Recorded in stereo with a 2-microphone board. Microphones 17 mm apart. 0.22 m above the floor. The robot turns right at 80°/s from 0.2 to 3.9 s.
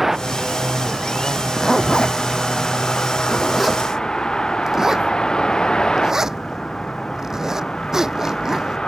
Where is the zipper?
5° left (ahead or behind); by 8.8 s 30° right (ahead or behind).